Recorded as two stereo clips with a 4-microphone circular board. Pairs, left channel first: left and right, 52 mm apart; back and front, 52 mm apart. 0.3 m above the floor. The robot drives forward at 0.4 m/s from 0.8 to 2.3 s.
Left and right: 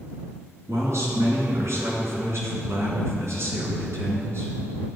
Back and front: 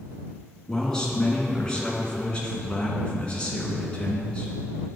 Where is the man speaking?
100° right, 3.5 m; by 4.9 s 110° right, 3.5 m.